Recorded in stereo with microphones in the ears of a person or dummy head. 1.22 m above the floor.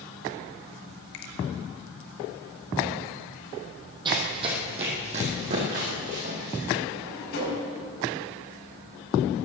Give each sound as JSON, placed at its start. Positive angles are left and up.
{"t": 1.1, "sound": "a finger snap", "side_deg": 65, "distance_m": 2.0}
{"t": 4.0, "sound": "running footsteps", "side_deg": -25, "distance_m": 3.0}
{"t": 6.9, "sound": "a drawer", "side_deg": 70, "distance_m": 6.5}